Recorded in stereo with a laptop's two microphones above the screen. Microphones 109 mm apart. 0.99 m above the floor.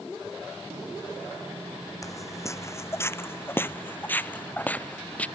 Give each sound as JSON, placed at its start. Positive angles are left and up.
{"t": 2.0, "sound": "footsteps", "side_deg": 30}